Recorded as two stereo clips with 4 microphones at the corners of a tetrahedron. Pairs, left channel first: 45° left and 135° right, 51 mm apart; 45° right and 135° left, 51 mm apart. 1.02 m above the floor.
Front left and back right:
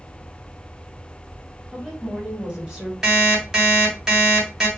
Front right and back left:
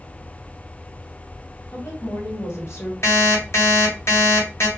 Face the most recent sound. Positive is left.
turn(degrees=-55)